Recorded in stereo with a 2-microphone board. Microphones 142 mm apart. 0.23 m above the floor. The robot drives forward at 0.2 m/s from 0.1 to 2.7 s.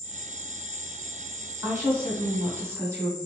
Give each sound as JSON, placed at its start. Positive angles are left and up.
{"t": 0.0, "sound": "an insect", "side_deg": -55, "distance_m": 0.8}
{"t": 1.6, "sound": "a woman speaking", "side_deg": -15, "distance_m": 1.3}